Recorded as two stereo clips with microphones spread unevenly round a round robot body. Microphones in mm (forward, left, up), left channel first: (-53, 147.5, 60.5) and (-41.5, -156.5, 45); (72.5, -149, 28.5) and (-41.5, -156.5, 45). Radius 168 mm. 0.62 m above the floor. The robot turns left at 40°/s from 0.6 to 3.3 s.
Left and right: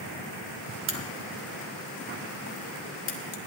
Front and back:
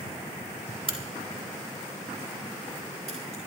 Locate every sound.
0.9 s a crack: 135° right, 2.5 m; by 3.4 s 130° left, 2.5 m